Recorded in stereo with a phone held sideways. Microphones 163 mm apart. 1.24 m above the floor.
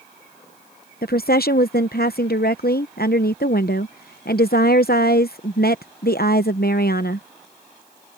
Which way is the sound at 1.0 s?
70° left (ahead or behind).